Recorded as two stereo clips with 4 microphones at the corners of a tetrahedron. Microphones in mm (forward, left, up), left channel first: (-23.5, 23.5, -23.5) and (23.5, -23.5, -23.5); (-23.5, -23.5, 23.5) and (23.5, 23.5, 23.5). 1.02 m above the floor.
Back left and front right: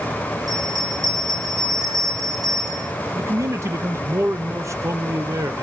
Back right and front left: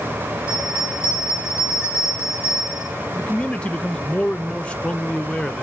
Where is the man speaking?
70° right, 1.0 m.